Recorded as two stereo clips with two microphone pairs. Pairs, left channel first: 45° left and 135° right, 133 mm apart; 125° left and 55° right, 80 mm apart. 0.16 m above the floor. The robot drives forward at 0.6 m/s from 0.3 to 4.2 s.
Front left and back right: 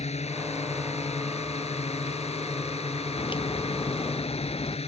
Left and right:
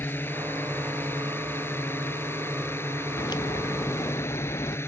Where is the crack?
95° left; by 4.8 s 100° left.